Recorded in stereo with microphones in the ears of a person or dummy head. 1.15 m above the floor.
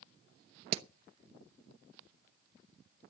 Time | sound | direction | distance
0.7 | hammering | 40° right (ahead or behind) | 0.9 m